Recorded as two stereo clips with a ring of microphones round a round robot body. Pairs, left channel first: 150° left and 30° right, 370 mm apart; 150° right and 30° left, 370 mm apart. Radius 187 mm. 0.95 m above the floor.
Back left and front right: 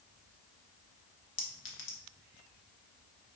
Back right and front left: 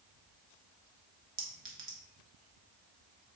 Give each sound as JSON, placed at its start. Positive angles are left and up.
{"t": 1.4, "sound": "a clink", "azimuth_deg": 90, "distance_m": 0.9}